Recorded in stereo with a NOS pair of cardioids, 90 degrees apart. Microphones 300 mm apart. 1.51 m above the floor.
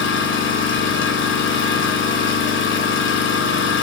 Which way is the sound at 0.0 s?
45° left.